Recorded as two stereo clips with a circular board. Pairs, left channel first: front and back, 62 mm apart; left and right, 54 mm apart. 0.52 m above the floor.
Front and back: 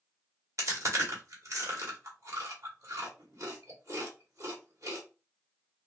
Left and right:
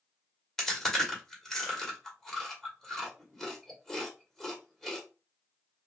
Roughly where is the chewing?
Behind.